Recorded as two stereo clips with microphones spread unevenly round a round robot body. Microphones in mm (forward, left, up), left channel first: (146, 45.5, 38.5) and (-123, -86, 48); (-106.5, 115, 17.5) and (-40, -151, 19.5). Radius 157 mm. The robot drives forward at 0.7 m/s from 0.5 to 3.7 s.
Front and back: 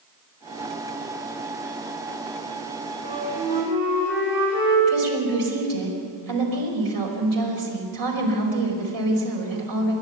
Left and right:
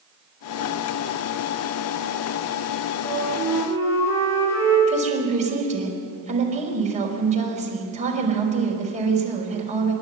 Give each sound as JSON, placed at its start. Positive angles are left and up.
{"t": 3.0, "sound": "a flute", "azimuth_deg": -175, "distance_m": 7.0}
{"t": 4.9, "sound": "a woman speaking", "azimuth_deg": -140, "distance_m": 5.5}